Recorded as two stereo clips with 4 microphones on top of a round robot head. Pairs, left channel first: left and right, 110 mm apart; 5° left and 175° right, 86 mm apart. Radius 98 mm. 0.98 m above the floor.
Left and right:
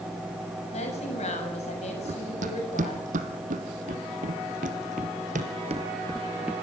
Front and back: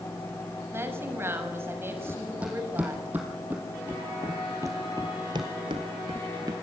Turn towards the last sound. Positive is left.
turn(degrees=-170)